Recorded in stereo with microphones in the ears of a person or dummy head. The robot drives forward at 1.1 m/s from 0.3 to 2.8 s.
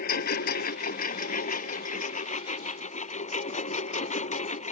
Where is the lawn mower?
55° left (ahead or behind); by 4.7 s 45° left (ahead or behind).